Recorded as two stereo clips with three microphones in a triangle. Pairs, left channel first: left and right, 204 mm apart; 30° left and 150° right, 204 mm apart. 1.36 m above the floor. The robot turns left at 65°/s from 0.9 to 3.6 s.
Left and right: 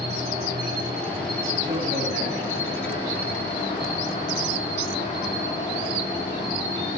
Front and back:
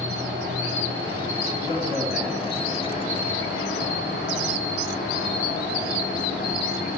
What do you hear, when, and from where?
0.0 s an insect: 160° right, 4 m; by 7.0 s 25° left, 4 m
1.6 s a man speaking: 25° right, 2.5 m; by 3.2 s 125° right, 2.5 m